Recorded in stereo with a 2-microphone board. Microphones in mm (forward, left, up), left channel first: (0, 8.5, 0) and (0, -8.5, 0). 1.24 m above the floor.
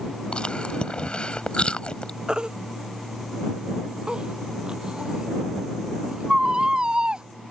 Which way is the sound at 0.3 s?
70° left (ahead or behind).